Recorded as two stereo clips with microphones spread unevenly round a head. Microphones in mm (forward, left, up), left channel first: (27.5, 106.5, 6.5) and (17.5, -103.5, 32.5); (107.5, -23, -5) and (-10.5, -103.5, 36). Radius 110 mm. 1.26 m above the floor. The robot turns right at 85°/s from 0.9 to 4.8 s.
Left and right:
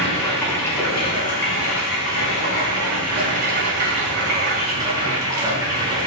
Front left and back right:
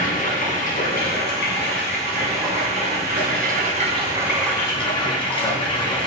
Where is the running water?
5° left, 5.5 m; by 6.1 s 20° right, 5.5 m.